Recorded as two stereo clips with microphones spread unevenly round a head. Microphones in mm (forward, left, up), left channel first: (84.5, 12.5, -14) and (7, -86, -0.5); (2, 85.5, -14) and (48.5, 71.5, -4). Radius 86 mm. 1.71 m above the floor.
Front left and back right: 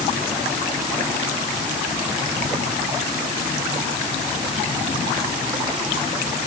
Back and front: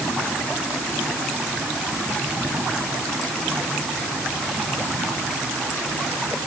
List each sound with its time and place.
Only background noise.